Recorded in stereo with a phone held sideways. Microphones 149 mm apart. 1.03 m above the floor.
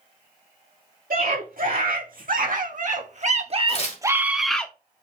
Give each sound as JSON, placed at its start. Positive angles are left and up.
{"t": 1.1, "sound": "a scream", "side_deg": -80, "distance_m": 3.0}
{"t": 3.7, "sound": "tearing paper", "side_deg": 45, "distance_m": 1.5}